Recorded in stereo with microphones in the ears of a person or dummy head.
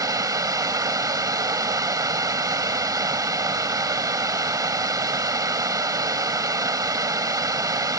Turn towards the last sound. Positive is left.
turn(degrees=-15)  # may be behind; listen again after turning